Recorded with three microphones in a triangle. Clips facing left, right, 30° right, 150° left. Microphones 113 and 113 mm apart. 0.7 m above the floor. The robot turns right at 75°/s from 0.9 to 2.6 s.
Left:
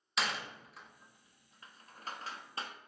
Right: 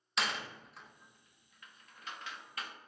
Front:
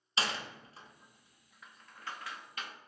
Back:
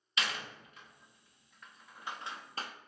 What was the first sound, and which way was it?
A door slam, straight ahead.